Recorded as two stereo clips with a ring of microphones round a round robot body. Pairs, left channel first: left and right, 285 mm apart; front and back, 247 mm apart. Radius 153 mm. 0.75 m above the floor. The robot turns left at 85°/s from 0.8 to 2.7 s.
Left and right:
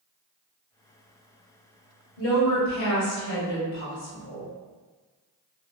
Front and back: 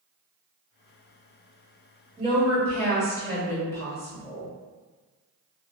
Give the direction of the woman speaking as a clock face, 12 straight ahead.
8 o'clock.